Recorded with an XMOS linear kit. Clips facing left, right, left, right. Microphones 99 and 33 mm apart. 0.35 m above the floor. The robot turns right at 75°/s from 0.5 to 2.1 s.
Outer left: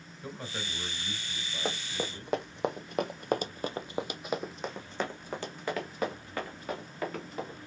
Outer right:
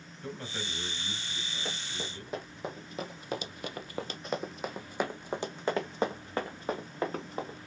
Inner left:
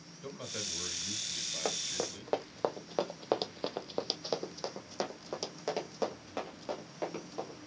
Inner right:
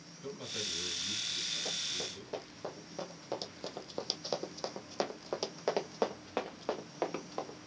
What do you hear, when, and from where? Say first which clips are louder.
0.2 s a man speaking: even, inner right 1 dB; 10° left, 1.9 m; by 2.4 s 130° left, 1.9 m
1.6 s running footsteps: outer left 8 dB, inner left 2 dB; 70° left (ahead or behind), 1.3 m; by 7.6 s 35° right (ahead or behind), 2.5 m